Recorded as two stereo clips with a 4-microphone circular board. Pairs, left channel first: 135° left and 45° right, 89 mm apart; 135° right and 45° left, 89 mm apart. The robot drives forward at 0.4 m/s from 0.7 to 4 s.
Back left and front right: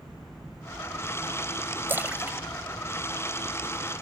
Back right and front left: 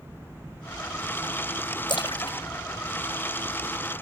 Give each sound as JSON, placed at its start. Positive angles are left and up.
{"t": 1.9, "sound": "a splash", "azimuth_deg": -110}